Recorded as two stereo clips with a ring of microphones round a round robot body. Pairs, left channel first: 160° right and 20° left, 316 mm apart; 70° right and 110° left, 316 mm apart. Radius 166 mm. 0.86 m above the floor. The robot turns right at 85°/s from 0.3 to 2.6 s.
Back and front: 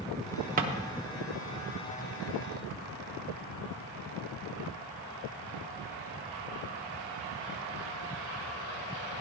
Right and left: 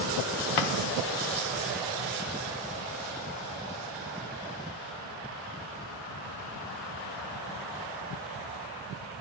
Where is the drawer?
45° right, 1.0 m; by 0.7 s 30° right, 1.0 m.